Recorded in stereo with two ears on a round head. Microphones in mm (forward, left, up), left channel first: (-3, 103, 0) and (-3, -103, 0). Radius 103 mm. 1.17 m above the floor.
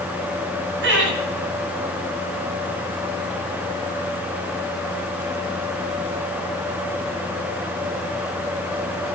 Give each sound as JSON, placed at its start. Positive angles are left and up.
{"t": 0.8, "sound": "laughter", "side_deg": -55, "distance_m": 8.5}